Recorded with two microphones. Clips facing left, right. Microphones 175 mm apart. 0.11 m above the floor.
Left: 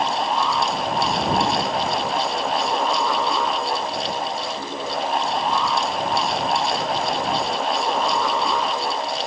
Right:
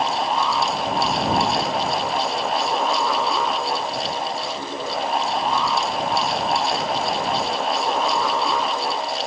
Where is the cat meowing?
I don't hear a cat meowing.